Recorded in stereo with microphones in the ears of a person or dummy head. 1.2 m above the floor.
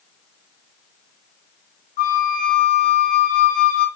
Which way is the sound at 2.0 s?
45° left (ahead or behind).